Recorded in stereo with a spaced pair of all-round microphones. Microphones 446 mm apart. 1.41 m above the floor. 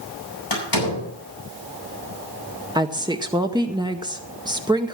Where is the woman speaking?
10° right (ahead or behind), 0.7 m.